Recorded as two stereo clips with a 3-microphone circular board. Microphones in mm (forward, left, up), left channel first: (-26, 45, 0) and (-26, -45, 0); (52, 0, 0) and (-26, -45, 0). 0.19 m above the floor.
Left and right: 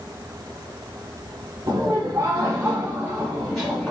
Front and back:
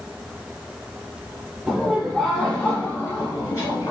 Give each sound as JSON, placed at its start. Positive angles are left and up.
{"t": 1.7, "sound": "laughter", "azimuth_deg": -75, "distance_m": 1.4}